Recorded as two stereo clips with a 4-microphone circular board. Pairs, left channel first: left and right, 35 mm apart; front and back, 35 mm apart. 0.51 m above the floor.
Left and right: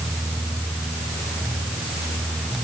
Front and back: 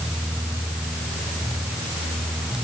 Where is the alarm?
No alarm in this recording.